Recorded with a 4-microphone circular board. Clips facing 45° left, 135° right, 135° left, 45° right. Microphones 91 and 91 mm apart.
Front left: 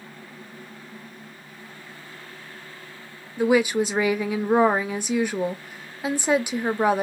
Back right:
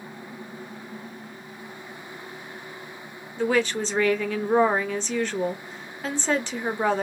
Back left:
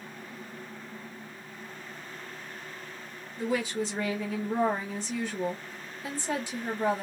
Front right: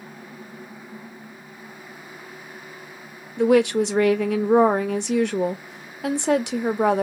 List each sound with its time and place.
3.4 s a woman speaking: 35° right, 0.5 m